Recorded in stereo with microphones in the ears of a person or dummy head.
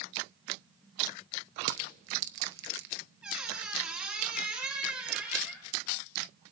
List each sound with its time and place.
1.6 s crushing: 65° right (ahead or behind), 0.8 m
3.2 s a squeak: 5° right (ahead or behind), 1.7 m